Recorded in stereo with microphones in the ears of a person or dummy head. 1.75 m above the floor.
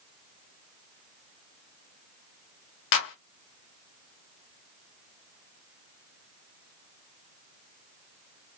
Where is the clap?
60° left (ahead or behind), 0.7 m.